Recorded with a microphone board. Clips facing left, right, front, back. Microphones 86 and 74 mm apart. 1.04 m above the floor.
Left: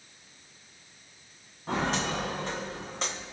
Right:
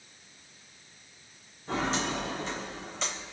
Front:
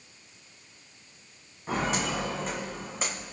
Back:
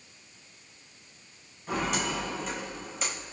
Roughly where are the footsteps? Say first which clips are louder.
Left 1 dB, front 1 dB; ahead left.